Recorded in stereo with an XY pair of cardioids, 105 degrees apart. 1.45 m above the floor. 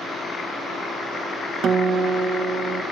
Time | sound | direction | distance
1.6 | a guitar | 65° right | 1.7 m